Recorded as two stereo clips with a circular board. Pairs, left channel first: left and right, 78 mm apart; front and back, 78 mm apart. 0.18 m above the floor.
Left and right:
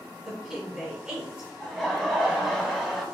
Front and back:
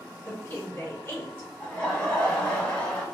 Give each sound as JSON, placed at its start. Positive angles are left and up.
{"t": 0.2, "sound": "a woman speaking", "azimuth_deg": -25, "distance_m": 1.8}
{"t": 1.6, "sound": "laughter", "azimuth_deg": -5, "distance_m": 1.0}